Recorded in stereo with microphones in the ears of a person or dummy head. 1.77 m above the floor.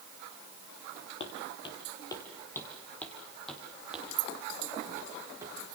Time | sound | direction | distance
1.2 | footsteps | 35° left (ahead or behind) | 3 m